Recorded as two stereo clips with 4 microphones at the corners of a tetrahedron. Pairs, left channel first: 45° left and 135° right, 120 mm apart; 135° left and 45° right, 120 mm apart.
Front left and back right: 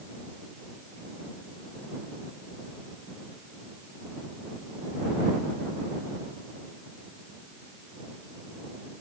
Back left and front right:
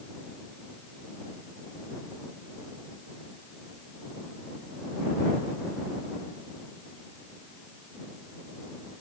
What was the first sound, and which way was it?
Only background noise.